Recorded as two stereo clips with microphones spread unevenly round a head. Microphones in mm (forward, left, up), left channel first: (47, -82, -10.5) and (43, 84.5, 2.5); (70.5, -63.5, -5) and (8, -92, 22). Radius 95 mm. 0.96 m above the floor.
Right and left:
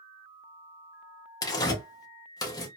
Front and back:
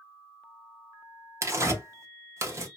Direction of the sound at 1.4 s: 110° right.